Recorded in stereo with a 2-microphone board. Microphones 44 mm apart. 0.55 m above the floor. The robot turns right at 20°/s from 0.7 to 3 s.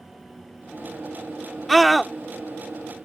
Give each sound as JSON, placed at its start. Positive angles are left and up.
{"t": 1.7, "sound": "a scream", "side_deg": 0}